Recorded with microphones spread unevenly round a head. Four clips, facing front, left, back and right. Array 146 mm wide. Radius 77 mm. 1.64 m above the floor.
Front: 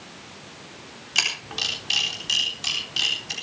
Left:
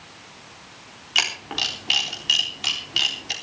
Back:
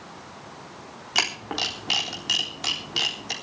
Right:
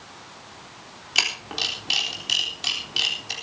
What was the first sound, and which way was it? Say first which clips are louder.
A camera shutter: left 2 dB, back 4 dB; 175° left.